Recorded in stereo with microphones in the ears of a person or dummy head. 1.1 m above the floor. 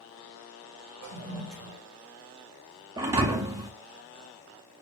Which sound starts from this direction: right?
A toilet flushing, at 1.0 s.